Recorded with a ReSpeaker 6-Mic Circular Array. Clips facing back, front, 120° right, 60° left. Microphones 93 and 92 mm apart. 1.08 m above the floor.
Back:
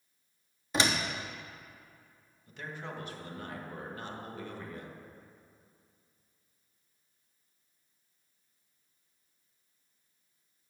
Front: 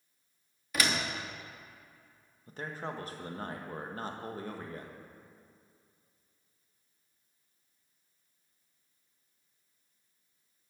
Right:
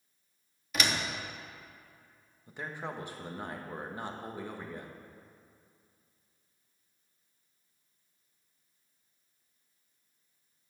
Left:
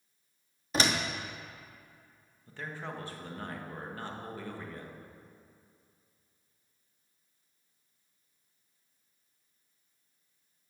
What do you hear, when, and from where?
0.7 s a door slam: 115° left, 1.0 m
2.5 s a man speaking: 50° right, 1.3 m